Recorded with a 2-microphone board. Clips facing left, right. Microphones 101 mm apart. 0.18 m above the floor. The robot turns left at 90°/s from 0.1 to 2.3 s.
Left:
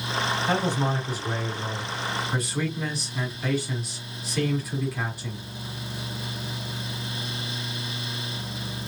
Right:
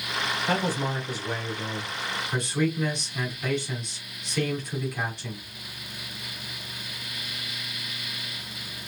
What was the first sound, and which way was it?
A man speaking, 170° left.